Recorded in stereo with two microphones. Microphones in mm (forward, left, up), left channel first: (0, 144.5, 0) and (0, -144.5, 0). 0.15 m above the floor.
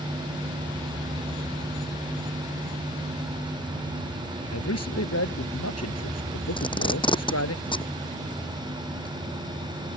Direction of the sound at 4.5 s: 60° left (ahead or behind).